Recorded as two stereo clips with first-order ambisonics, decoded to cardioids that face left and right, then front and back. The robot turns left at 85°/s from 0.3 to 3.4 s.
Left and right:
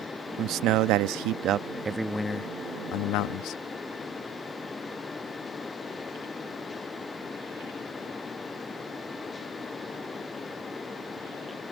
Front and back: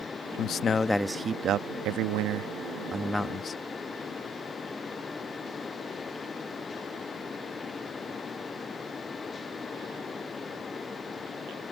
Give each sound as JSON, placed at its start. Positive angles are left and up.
{"t": 0.4, "sound": "a man speaking", "azimuth_deg": -40}